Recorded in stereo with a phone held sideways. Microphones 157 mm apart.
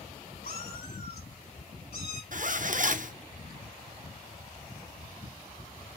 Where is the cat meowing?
85° left, 3.5 m; by 2.2 s 75° left (ahead or behind), 3.5 m.